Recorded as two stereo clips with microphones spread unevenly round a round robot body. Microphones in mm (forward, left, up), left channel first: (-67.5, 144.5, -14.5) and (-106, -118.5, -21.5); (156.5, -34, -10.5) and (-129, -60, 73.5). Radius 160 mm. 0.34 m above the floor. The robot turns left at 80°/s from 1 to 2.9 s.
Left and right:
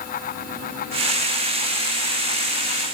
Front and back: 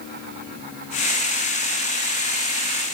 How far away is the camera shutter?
I don't hear a camera shutter.